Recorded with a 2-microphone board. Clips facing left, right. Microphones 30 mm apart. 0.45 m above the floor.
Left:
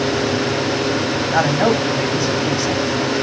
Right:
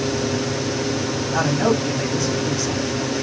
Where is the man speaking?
35° left (ahead or behind), 1.2 m.